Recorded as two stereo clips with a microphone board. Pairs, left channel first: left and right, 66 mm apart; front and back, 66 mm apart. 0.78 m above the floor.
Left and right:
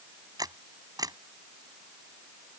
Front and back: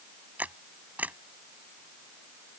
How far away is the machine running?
I don't hear a machine running.